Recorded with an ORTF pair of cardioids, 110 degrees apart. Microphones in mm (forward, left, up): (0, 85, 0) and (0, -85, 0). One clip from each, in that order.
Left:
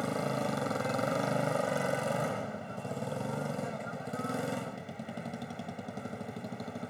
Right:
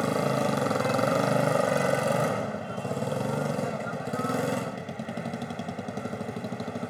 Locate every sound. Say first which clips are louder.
0.0 s a motorcycle: right 7 dB; 40° right